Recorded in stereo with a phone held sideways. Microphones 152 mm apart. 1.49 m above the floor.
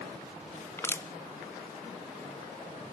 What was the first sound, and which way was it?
Crushing, 15° left (ahead or behind).